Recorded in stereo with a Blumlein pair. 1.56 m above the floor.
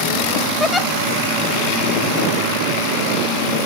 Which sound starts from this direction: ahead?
A giggle, at 0.6 s.